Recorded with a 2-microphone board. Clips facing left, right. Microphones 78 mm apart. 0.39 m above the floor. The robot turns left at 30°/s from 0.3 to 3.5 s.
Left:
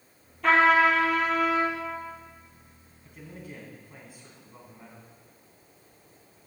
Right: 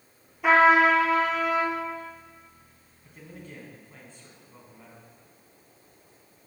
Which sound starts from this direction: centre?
A man speaking, at 3.0 s.